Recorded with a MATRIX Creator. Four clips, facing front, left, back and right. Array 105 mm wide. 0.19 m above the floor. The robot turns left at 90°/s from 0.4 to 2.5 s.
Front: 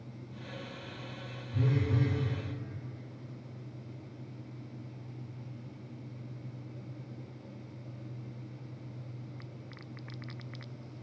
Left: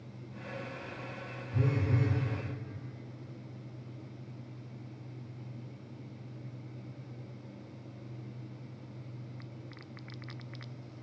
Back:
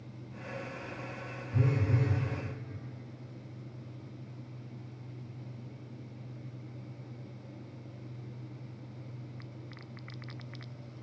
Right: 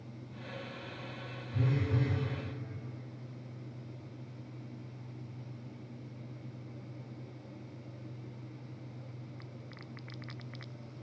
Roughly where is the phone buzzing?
Behind.